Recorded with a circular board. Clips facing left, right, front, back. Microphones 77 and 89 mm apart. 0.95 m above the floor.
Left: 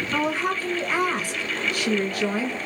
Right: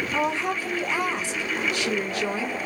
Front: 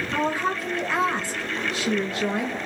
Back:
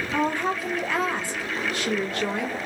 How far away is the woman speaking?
About 1.5 m.